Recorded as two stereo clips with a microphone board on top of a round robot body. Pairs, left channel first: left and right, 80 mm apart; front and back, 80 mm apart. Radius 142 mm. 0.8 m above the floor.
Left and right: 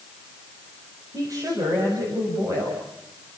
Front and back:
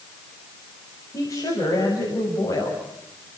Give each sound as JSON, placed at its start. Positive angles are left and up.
{"t": 1.1, "sound": "a woman speaking", "azimuth_deg": -45, "distance_m": 7.0}